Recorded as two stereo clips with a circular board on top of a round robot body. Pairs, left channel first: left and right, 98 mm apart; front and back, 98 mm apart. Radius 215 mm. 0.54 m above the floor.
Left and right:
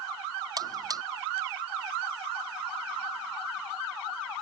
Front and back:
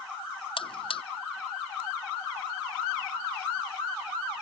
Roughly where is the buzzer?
Ahead right.